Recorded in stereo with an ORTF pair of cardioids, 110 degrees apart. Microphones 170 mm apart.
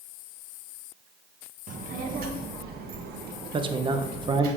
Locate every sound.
1.7 s a child speaking: 55° right, 1.4 m; by 4.5 s 75° right, 3 m
3.5 s a man speaking: 30° right, 1.0 m